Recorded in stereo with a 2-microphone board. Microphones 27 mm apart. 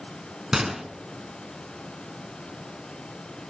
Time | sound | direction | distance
0.5 | a gunshot | 15° right (ahead or behind) | 1.2 m